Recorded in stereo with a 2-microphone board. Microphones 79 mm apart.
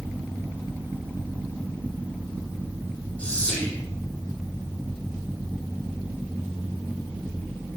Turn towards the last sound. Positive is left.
turn(degrees=15)  # may be behind; listen again after turning